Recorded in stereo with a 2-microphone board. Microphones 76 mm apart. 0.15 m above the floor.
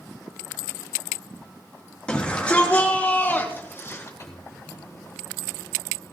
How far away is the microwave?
About 4 m.